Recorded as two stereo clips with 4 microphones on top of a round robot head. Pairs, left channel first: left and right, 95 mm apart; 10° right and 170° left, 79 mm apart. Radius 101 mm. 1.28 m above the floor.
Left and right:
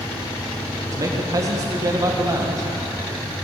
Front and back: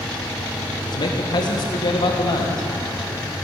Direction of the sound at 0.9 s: 35° right.